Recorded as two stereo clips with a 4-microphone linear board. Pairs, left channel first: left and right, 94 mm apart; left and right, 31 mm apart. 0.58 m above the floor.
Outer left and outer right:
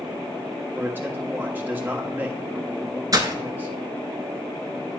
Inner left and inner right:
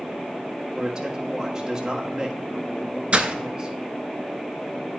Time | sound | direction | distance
0.8 | a man speaking | 20° right (ahead or behind) | 1.1 m
3.1 | breaking glass | 40° right (ahead or behind) | 0.8 m